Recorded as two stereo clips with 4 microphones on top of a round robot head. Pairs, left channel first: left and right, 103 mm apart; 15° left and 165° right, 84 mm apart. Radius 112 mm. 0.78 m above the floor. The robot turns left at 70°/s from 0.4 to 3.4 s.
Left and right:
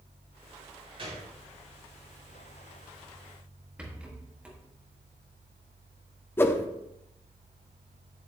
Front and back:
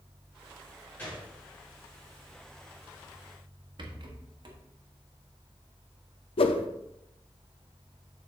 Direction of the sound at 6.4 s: 20° left.